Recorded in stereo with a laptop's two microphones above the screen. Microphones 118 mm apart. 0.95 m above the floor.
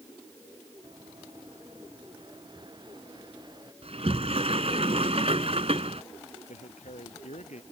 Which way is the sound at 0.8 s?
45° right (ahead or behind).